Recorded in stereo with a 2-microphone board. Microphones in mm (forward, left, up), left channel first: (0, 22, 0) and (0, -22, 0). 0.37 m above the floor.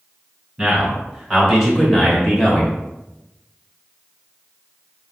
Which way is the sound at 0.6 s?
15° right (ahead or behind).